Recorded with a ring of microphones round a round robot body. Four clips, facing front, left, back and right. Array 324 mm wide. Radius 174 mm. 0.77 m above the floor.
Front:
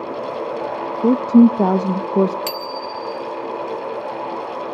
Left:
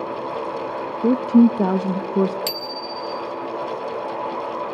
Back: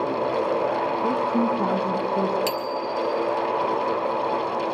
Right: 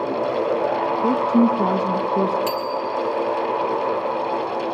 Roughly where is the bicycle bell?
Left.